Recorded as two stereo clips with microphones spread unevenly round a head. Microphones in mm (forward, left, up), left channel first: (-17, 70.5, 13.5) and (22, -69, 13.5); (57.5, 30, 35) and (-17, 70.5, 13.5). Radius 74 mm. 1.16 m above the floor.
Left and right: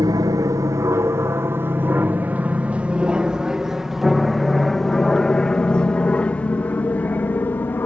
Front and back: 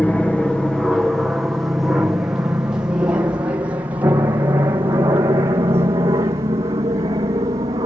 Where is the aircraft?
115° right; by 7.9 s straight behind.